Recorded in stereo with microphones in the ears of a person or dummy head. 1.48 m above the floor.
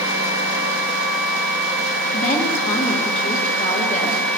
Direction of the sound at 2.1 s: 45° left (ahead or behind).